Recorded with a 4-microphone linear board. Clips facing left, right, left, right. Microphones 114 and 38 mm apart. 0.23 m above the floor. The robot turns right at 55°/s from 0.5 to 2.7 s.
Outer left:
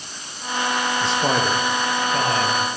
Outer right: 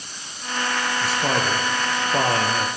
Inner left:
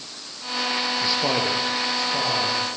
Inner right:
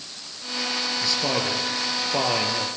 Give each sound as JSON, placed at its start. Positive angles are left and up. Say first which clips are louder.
{"t": 1.0, "sound": "a man speaking", "louder": "outer left 2 dB, inner left 1 dB", "azimuth_deg": 150, "distance_m": 4.0}